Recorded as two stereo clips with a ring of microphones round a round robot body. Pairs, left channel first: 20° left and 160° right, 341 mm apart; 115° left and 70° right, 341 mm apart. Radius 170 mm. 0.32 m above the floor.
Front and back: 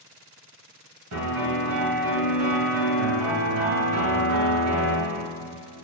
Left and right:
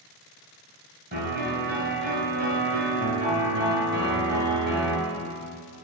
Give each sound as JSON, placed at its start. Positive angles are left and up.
{"t": 1.1, "sound": "a piano", "azimuth_deg": -125, "distance_m": 2.0}